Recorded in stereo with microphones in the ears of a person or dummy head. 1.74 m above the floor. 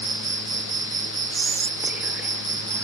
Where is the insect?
15° right (ahead or behind).